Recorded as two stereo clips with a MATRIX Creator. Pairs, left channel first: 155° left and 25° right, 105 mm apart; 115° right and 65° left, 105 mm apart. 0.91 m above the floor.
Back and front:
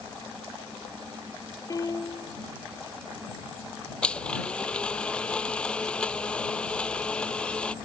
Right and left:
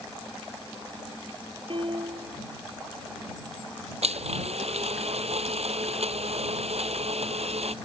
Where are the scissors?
No scissors in this recording.